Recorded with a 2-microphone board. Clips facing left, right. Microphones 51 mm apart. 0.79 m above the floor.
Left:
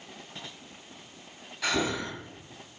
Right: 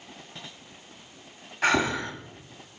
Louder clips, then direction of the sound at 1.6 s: Right 5 dB; 45° right (ahead or behind).